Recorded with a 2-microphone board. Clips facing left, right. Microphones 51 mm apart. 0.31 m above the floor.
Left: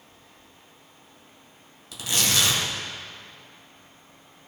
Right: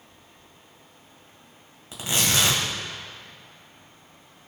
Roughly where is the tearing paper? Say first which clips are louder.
Right 1 dB; right.